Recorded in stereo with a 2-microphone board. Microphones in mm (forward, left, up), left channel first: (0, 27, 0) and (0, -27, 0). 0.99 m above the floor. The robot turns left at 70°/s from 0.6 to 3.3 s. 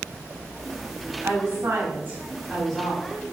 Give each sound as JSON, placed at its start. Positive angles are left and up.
{"t": 1.2, "sound": "a woman speaking", "azimuth_deg": -80, "distance_m": 1.6}